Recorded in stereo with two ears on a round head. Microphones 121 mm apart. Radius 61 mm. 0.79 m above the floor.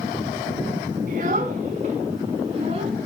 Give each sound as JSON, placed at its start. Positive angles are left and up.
{"t": 1.1, "sound": "a child speaking", "side_deg": -65, "distance_m": 5.0}